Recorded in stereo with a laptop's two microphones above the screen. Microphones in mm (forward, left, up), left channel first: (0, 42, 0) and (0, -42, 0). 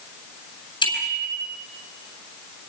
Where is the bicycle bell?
65° left (ahead or behind), 8.5 m.